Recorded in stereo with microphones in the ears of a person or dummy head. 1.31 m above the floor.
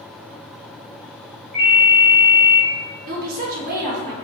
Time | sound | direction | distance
1.5 | a ringtone | 5° left (ahead or behind) | 0.9 m
3.1 | a woman speaking | 50° right (ahead or behind) | 0.9 m